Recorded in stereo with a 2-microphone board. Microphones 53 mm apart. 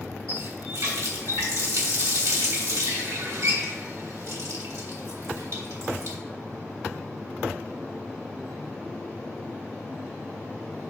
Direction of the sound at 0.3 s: 80° right.